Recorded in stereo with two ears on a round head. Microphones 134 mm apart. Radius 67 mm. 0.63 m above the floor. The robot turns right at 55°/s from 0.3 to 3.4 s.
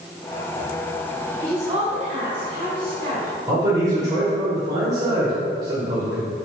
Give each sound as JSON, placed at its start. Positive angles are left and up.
{"t": 1.4, "sound": "a woman speaking", "azimuth_deg": -155, "distance_m": 2.5}
{"t": 3.5, "sound": "a man speaking", "side_deg": -25, "distance_m": 2.5}